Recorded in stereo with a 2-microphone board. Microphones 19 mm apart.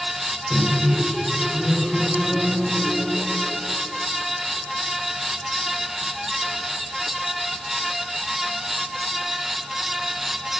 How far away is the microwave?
About 3.5 m.